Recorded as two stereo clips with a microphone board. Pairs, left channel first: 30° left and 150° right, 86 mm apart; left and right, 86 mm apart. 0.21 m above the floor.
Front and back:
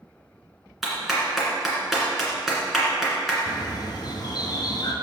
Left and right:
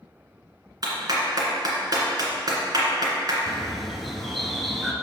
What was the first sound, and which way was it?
A clap, 60° right.